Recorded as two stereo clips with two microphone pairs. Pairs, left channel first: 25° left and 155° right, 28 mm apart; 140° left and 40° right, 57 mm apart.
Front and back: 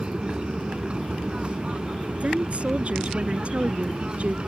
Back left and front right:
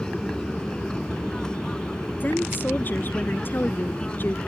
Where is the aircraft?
155° right; by 4.5 s 165° right.